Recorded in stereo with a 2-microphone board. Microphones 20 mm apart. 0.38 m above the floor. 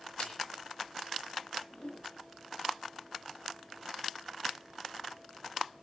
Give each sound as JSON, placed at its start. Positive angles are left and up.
{"t": 0.2, "sound": "a snare drum", "side_deg": 60, "distance_m": 6.5}
{"t": 1.7, "sound": "a whoosh", "side_deg": 45, "distance_m": 5.5}